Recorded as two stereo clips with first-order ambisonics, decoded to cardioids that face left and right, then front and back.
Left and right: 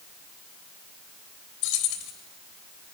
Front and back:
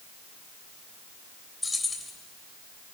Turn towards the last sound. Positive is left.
turn(degrees=80)